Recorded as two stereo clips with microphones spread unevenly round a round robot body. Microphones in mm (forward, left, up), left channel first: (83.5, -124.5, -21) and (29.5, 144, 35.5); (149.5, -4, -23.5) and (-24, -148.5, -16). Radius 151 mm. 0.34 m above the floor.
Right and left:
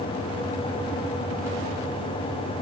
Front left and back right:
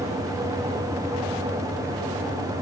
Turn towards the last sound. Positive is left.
No sound to turn to.